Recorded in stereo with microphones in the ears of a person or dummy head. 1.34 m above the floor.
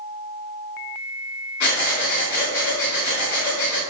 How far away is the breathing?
About 1.9 m.